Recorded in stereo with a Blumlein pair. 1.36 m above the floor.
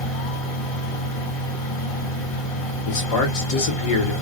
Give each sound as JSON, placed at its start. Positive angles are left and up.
{"t": 0.0, "sound": "a fan", "azimuth_deg": 40, "distance_m": 1.7}
{"t": 2.9, "sound": "a man speaking", "azimuth_deg": 45, "distance_m": 1.1}